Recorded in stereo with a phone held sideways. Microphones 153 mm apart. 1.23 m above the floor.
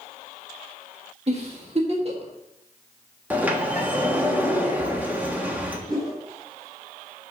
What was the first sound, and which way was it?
A giggle, 45° right (ahead or behind).